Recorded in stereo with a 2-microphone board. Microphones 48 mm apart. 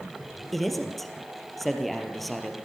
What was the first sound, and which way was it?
A man speaking, 5° left (ahead or behind).